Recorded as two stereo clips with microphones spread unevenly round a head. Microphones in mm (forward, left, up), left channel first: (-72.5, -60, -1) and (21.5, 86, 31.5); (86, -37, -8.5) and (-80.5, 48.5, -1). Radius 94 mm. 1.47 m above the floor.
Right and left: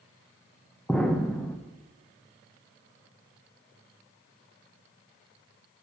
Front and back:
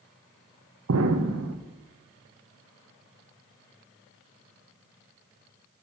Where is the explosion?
150° left, 1.1 m.